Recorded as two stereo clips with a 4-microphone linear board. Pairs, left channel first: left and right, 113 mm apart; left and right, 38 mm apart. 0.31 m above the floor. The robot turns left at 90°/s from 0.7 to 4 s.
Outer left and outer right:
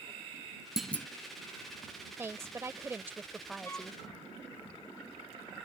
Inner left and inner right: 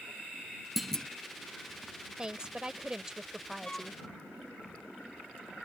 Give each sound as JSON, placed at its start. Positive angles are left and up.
{"t": 0.8, "sound": "a clunk", "side_deg": -5}
{"t": 2.2, "sound": "a woman speaking", "side_deg": -20}
{"t": 3.6, "sound": "a flute", "side_deg": 25}